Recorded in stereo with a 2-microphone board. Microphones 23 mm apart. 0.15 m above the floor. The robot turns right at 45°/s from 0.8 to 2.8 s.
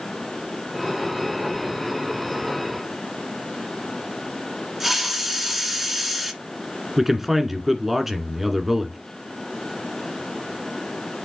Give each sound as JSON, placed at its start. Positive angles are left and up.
{"t": 4.8, "sound": "a hiss", "side_deg": -10, "distance_m": 1.5}
{"t": 7.0, "sound": "a man speaking", "side_deg": -10, "distance_m": 1.5}